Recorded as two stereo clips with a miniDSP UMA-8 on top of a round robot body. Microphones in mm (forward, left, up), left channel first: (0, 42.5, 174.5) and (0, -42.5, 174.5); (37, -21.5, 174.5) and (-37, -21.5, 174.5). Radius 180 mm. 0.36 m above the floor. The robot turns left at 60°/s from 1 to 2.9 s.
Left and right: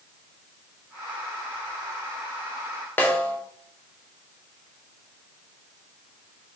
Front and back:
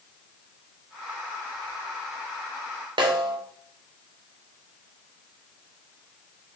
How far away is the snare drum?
About 0.8 m.